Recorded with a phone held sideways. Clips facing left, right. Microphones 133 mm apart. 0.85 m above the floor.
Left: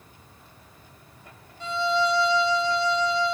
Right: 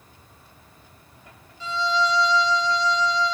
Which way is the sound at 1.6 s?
55° left (ahead or behind).